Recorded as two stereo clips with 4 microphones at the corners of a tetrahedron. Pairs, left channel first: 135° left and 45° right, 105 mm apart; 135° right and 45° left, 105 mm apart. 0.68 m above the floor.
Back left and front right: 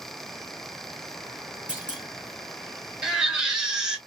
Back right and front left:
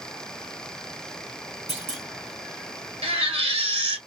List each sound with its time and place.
1.7 s a clunk: 35° left, 2 m
3.0 s a baby crying: 40° left, 1.5 m